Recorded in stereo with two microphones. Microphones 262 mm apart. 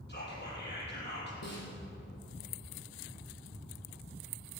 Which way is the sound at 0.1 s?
40° left (ahead or behind).